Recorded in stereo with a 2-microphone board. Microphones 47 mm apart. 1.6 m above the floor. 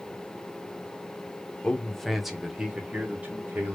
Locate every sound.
1.6 s a man speaking: 20° left (ahead or behind), 1.0 m; by 3.8 s 35° right (ahead or behind), 2 m